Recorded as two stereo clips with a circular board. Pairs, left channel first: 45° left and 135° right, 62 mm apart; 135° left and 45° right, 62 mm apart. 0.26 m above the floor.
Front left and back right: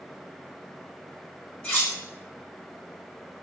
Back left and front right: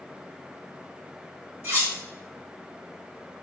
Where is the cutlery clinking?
10° right, 1.0 m.